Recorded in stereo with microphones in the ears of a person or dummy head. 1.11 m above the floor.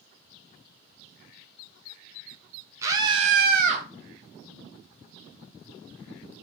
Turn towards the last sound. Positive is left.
turn(degrees=-30)  # may be behind; listen again after turning